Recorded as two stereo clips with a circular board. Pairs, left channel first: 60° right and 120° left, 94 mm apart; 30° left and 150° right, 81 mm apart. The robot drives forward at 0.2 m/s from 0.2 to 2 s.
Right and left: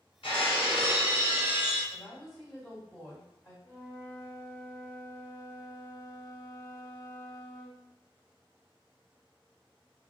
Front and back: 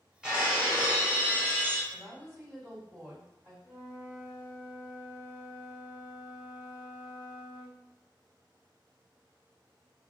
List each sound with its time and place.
0.2 s breaking glass: 70° right, 1.3 m; by 1.8 s 85° right, 1.2 m
1.9 s a woman speaking: 150° right, 1.6 m
3.6 s a flute: 165° left, 0.7 m